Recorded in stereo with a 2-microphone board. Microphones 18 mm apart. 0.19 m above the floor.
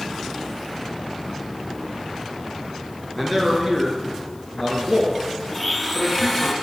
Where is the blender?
5° left (ahead or behind), 1.1 m.